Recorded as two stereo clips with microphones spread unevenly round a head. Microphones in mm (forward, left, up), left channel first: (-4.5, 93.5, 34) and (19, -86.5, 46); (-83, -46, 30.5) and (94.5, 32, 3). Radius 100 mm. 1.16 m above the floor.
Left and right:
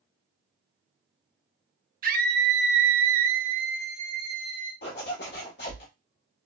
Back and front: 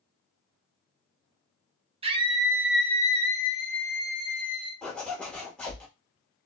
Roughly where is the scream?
Ahead right.